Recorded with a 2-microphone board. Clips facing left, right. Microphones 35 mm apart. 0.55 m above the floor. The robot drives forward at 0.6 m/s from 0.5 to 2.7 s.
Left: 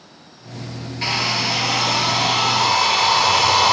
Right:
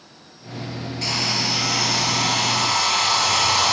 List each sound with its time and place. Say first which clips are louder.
1.0 s a hair dryer: left 4 dB; 30° left (ahead or behind), 1.7 m; by 3.7 s 20° left (ahead or behind), 2.5 m